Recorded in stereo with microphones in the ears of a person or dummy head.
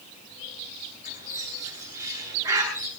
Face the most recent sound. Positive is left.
turn(degrees=-20)  # may be behind; listen again after turning